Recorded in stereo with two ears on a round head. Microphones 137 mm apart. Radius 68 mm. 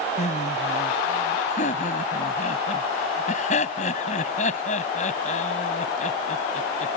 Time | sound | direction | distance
0.2 | laughter | 50° left (ahead or behind) | ?